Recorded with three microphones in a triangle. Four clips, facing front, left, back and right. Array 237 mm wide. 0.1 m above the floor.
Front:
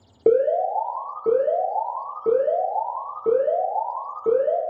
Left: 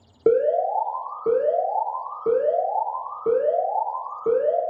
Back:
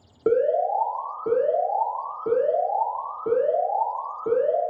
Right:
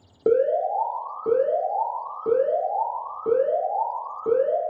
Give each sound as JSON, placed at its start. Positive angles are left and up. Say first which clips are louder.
{"t": 0.3, "sound": "an alarm", "louder": "left 1 dB, front 2 dB", "azimuth_deg": -15, "distance_m": 1.0}